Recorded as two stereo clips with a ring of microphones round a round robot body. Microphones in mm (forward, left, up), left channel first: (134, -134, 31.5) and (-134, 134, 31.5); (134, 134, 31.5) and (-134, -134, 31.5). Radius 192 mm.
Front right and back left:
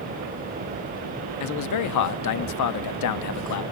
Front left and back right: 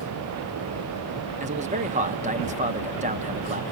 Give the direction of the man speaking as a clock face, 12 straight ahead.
2 o'clock.